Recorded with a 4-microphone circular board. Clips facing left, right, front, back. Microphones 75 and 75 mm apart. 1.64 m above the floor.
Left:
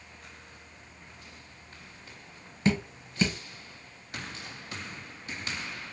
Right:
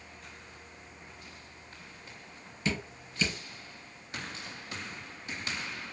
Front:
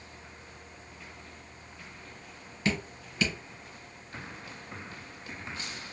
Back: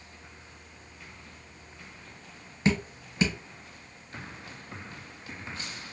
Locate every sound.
2.6 s dripping: 125° left, 0.9 m